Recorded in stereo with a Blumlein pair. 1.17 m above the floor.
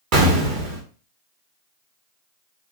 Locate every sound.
0.1 s an explosion: 40° right, 0.9 m